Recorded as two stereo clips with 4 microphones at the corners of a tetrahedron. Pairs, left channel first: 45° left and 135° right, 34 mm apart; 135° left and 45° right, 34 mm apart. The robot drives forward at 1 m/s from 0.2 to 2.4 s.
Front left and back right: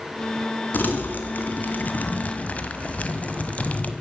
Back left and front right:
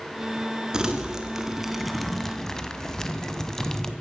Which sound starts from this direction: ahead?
Crumpling, at 0.7 s.